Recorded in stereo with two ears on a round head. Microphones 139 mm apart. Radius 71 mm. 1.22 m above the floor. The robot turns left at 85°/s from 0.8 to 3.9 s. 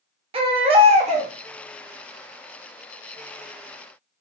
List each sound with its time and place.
0.3 s a baby crying: 60° right, 0.7 m; by 1.3 s 105° right, 0.7 m